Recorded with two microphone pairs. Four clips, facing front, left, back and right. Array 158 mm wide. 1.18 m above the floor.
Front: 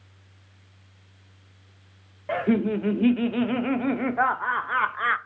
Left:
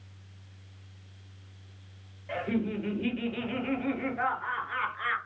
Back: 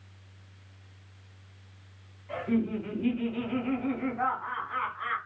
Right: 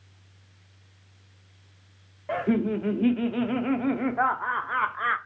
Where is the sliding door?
No sliding door in this recording.